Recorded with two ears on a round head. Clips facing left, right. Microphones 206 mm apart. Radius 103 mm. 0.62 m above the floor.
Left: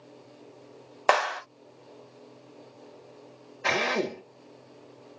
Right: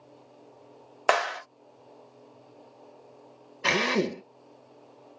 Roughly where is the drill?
Right.